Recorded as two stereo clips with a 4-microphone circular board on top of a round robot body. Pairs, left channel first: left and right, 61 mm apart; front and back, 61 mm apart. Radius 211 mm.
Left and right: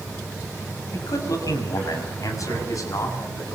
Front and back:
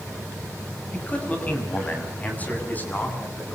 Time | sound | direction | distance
0.9 | a man speaking | 65° left | 7 m